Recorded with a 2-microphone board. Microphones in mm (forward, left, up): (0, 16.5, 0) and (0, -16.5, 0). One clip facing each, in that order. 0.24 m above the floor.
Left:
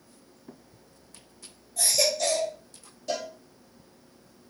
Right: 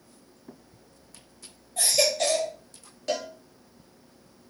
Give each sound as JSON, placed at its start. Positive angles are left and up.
{"t": 1.8, "sound": "a baby crying", "side_deg": -45, "distance_m": 4.5}
{"t": 3.1, "sound": "a cowbell", "side_deg": -55, "distance_m": 4.0}